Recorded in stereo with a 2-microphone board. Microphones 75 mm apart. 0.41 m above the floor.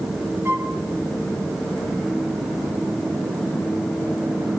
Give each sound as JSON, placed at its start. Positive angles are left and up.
{"t": 0.5, "sound": "a flute", "side_deg": -30, "distance_m": 1.5}